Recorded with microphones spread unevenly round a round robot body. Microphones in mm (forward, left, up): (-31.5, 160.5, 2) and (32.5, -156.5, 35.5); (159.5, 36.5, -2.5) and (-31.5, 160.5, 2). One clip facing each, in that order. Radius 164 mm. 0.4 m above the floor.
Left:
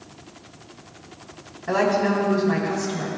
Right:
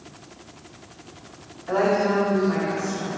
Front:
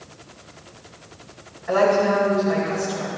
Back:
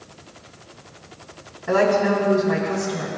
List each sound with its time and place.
1.7 s a woman speaking: 120° left, 7 m